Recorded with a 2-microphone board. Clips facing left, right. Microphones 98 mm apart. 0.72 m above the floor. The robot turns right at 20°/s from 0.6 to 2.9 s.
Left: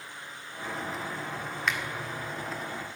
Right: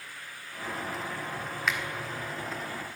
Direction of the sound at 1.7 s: Centre (ahead or behind).